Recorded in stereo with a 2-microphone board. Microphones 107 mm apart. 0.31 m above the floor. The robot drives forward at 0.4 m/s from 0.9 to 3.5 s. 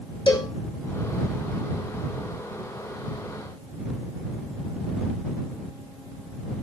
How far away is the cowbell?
About 0.9 m.